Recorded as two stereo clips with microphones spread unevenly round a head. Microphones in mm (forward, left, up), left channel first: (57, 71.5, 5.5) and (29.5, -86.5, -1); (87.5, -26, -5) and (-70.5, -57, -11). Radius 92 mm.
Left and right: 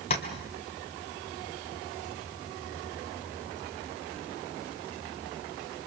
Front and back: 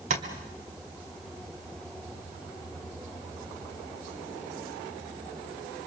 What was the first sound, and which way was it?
Tapping, 140° left.